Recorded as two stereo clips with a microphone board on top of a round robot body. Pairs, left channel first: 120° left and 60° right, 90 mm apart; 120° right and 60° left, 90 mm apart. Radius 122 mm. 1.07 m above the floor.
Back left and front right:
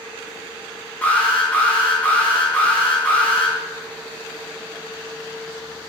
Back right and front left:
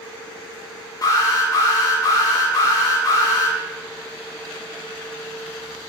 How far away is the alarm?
About 10 m.